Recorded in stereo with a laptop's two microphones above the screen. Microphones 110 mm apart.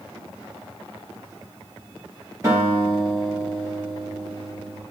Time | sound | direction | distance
2.4 | a guitar | 30° right (ahead or behind) | 4.5 m